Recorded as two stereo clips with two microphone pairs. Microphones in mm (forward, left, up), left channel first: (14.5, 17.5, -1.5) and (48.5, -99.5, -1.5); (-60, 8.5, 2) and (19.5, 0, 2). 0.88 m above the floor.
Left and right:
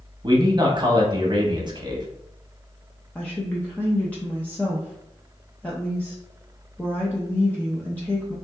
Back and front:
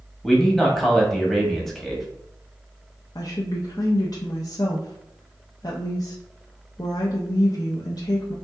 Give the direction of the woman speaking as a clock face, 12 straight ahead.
6 o'clock.